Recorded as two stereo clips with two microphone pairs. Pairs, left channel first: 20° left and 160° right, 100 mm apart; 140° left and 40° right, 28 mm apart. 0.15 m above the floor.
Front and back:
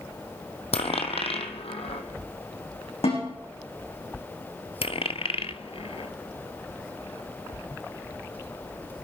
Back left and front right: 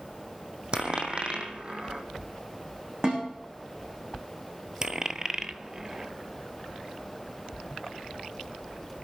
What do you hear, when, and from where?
0.7 s a dropped coin: 10° left, 1.6 m
3.0 s a snare drum: 15° left, 9.5 m
4.8 s a dropped coin: 25° left, 0.7 m